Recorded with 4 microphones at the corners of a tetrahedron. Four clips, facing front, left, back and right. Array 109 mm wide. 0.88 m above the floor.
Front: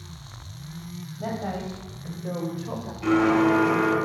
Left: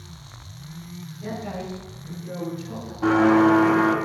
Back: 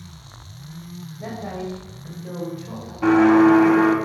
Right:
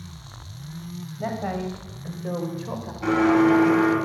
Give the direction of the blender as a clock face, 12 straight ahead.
7 o'clock.